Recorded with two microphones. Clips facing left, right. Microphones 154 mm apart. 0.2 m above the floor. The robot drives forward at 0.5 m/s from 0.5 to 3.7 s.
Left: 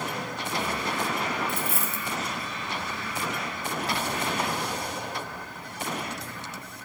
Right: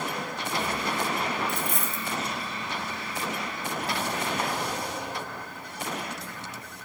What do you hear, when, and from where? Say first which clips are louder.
1.5 s a dropped coin: even; 5° left (ahead or behind), 1.7 m